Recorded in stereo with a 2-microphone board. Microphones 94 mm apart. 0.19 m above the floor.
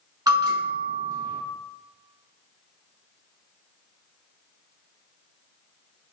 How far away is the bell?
About 1.2 m.